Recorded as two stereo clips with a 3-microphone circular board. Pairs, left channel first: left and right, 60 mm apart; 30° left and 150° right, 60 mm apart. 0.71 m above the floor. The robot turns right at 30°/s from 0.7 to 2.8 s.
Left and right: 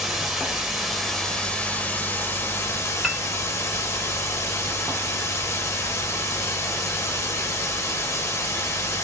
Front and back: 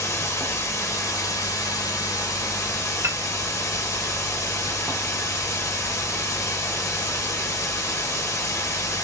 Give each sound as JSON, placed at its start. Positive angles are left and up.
{"t": 0.0, "sound": "running water", "azimuth_deg": -10, "distance_m": 0.9}
{"t": 3.0, "sound": "a piano", "azimuth_deg": 180, "distance_m": 0.5}